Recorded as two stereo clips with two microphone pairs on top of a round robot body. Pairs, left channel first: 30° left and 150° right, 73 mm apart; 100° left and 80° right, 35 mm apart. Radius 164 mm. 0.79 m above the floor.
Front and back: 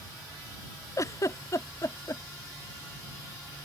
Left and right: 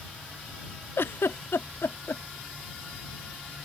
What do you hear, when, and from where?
1.0 s a giggle: 80° left